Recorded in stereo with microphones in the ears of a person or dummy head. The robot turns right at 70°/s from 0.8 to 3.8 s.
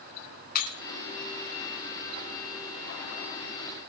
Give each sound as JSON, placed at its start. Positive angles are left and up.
{"t": 0.6, "sound": "breaking glass", "side_deg": 45, "distance_m": 2.5}